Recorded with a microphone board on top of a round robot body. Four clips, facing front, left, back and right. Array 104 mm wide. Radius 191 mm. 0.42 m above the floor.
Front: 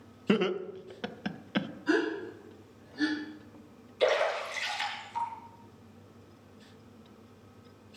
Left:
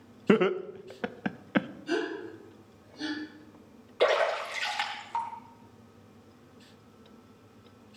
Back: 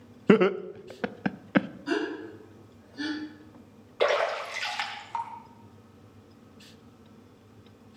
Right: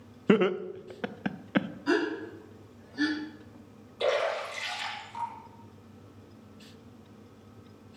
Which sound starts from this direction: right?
A gasp, at 1.9 s.